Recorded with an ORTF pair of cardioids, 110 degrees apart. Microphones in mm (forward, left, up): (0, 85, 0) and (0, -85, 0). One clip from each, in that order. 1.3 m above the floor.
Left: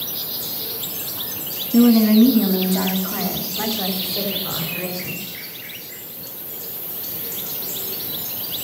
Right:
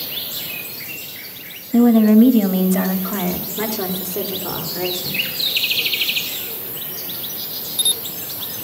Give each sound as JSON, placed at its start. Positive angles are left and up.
{"t": 1.7, "sound": "a woman speaking", "azimuth_deg": -20, "distance_m": 1.9}